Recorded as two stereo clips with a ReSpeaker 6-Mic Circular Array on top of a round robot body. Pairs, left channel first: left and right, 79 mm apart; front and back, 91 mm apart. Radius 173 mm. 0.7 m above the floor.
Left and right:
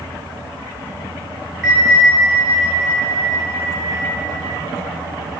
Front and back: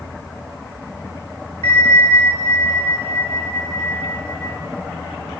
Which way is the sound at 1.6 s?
170° right.